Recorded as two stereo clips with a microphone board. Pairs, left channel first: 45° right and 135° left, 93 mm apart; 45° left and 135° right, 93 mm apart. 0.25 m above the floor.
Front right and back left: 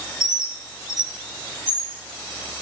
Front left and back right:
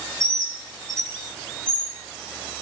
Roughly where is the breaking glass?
No breaking glass in this recording.